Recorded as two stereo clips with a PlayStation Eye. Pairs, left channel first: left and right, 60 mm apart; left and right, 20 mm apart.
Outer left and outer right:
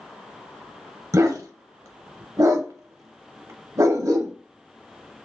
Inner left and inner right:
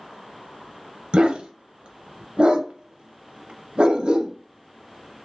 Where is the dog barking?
65° right (ahead or behind), 0.5 m.